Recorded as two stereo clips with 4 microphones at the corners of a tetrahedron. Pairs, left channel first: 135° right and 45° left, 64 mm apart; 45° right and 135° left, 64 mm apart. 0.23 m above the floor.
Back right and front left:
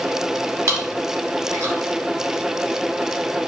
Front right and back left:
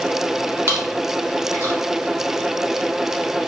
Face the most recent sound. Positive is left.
turn(degrees=80)